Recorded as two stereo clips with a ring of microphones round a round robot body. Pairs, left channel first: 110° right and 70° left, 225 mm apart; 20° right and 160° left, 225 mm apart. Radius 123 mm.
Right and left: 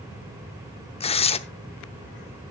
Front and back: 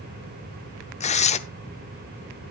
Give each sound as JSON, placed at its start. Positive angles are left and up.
{"t": 1.0, "sound": "tearing paper", "azimuth_deg": -65, "distance_m": 0.7}